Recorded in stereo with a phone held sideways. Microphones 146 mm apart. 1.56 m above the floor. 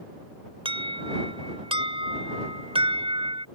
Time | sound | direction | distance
0.7 | an alarm | 35° right (ahead or behind) | ?